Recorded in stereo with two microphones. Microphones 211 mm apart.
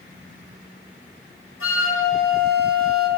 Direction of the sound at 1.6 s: 80° left.